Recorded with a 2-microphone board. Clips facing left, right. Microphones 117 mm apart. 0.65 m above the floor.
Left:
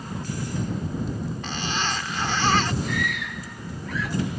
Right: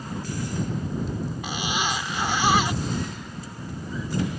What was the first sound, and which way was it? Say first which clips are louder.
A zipper: right 1 dB; 10° right (ahead or behind).